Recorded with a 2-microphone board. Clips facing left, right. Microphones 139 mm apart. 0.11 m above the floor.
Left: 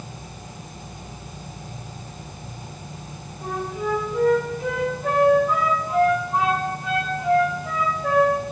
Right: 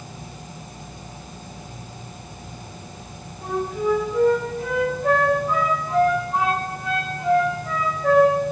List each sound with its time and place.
3.4 s a flute: centre (ahead or behind), 7.5 m